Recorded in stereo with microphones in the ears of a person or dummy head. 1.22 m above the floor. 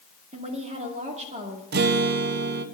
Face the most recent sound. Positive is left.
turn(degrees=-45)  # may be behind; listen again after turning